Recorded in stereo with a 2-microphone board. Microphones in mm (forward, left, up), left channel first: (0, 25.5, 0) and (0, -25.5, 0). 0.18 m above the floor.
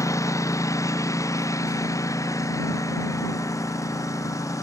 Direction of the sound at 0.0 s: 75° left (ahead or behind).